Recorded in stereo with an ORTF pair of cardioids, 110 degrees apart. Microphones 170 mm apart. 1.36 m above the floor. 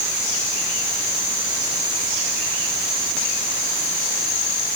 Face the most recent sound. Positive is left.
No sound to turn to.